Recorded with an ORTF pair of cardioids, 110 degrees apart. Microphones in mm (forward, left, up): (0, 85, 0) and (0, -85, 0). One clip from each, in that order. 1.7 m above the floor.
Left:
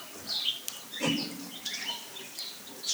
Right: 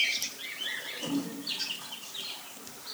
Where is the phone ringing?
No phone ringing in this recording.